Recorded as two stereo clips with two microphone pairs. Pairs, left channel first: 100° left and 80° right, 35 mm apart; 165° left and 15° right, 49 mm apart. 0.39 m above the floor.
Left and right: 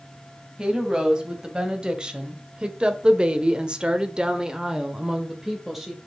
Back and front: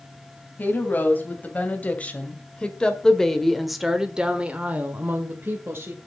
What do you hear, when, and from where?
0.6 s a woman speaking: 145° right, 3 m; by 6.0 s straight ahead, 1.7 m